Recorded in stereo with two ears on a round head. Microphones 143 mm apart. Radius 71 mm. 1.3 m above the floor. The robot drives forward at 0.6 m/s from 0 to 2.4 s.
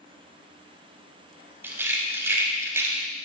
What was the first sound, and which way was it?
A rattle, 15° right (ahead or behind).